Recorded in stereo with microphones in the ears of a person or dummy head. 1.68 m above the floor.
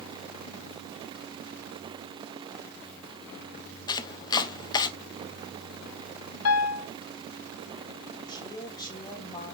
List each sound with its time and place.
3.9 s chopping: 20° left (ahead or behind), 1.0 m
6.5 s a piano: 90° left, 0.9 m
8.3 s a woman speaking: 25° left (ahead or behind), 3 m